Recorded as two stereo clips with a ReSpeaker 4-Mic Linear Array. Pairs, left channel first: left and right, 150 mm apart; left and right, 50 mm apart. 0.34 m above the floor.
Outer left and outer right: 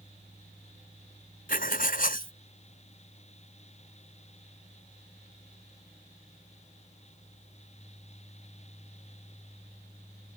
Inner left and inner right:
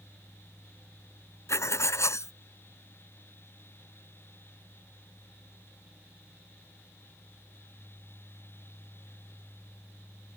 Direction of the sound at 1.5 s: 70° left (ahead or behind).